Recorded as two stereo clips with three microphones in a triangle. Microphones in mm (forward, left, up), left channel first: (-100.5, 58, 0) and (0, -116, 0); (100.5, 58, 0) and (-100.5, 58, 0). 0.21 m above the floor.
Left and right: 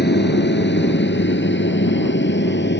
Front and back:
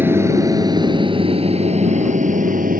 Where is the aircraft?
105° left; by 2.8 s 140° left.